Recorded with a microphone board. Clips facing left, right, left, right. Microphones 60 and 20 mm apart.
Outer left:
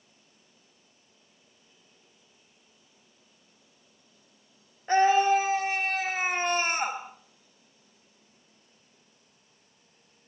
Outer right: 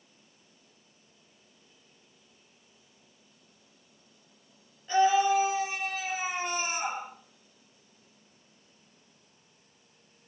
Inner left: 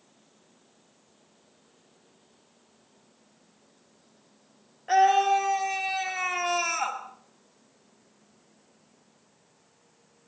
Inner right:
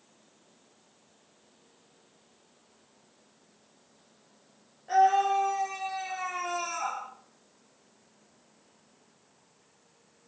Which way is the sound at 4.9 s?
50° left (ahead or behind).